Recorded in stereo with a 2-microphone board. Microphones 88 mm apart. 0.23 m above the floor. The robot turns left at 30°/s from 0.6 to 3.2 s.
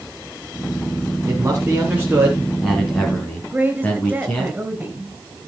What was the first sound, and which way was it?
A man speaking, 145° right.